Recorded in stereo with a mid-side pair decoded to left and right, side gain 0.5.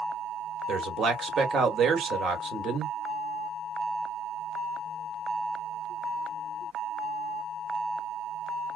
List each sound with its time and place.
0.7 s a man speaking: 50° right, 1.2 m